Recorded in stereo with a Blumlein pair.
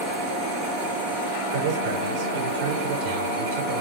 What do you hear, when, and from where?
1.5 s a man speaking: 45° right, 5 m